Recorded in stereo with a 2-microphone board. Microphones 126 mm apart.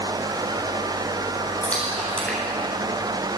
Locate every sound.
1.6 s a splash: 10° left (ahead or behind), 10 m